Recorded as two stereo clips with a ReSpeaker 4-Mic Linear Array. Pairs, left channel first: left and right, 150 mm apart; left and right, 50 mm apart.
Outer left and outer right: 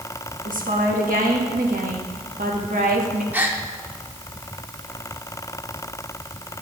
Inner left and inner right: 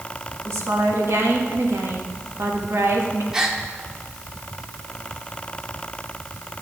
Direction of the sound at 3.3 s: 10° right (ahead or behind).